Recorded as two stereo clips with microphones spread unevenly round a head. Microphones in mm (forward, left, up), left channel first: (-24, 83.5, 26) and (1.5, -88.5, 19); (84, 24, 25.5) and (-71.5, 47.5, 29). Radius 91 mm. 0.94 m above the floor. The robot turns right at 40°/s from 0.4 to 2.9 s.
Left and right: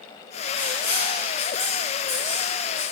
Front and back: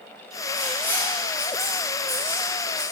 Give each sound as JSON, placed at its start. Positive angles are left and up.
{"t": 0.5, "sound": "writing", "azimuth_deg": 55, "distance_m": 5.0}